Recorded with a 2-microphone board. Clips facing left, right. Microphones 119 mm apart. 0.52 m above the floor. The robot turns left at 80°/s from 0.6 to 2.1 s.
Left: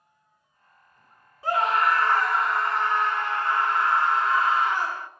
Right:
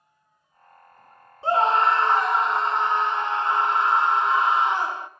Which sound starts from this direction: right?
A scream, at 1.4 s.